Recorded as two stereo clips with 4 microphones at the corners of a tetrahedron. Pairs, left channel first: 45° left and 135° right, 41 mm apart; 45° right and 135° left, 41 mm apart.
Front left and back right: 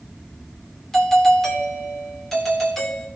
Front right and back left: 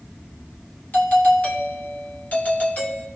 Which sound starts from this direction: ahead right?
A doorbell, at 0.9 s.